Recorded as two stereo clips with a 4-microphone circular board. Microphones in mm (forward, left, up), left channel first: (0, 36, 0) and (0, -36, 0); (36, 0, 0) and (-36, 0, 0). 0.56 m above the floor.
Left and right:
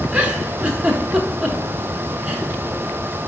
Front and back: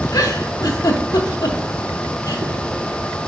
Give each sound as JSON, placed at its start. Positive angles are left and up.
{"t": 0.1, "sound": "a giggle", "azimuth_deg": -20, "distance_m": 0.7}